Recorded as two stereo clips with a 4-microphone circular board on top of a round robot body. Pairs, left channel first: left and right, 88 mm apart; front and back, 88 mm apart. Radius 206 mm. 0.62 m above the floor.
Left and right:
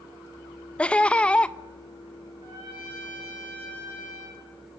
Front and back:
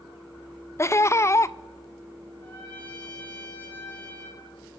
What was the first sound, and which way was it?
Laughter, 20° left.